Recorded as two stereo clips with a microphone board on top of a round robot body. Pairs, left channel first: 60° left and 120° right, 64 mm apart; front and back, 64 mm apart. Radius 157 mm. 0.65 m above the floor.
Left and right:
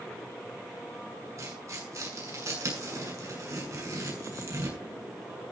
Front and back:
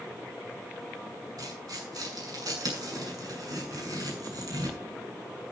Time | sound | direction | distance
1.4 | tearing paper | 160° right | 7 m